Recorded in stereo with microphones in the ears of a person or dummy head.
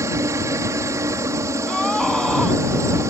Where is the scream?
5° left (ahead or behind).